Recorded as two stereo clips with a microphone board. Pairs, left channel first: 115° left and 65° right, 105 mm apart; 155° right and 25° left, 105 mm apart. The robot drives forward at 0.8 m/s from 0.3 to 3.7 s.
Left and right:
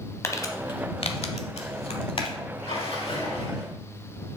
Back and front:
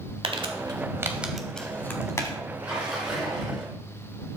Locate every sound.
0.2 s crumpling: 50° left, 1.0 m; by 2.4 s 145° left, 1.3 m
2.6 s a splash: 100° left, 3 m; by 3.7 s 115° left, 3.5 m